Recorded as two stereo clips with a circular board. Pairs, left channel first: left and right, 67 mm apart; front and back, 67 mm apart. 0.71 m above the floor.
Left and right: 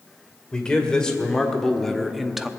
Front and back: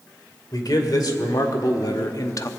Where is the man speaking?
10° left, 2 m; by 2.5 s 10° right, 0.7 m.